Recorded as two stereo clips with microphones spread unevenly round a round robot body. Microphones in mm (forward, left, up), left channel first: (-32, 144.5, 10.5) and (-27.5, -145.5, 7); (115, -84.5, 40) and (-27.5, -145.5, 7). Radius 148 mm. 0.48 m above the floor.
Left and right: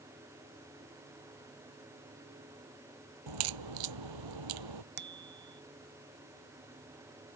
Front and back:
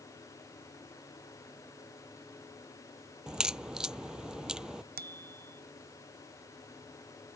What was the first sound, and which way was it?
A crack, 70° right.